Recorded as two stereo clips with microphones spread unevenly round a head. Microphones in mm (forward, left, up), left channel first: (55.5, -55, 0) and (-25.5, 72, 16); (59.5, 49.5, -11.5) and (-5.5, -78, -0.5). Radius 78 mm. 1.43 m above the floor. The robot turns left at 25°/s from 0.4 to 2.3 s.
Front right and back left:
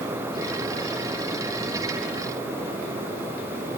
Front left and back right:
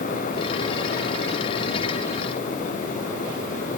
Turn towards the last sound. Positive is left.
No sound to turn to.